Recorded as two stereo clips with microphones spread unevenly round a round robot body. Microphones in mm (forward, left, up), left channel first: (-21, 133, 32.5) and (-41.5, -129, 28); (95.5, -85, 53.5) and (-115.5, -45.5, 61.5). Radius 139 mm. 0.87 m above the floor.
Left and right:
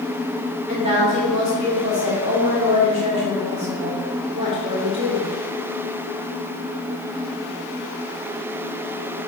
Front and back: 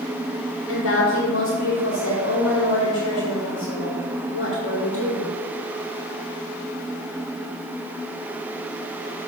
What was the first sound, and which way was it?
A woman speaking, 25° right.